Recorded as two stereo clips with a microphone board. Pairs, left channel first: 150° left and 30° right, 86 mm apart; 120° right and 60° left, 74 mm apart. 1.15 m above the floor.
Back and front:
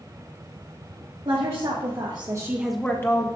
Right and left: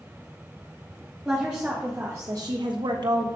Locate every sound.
1.2 s a woman speaking: 20° right, 2 m; by 3.3 s 95° left, 1.2 m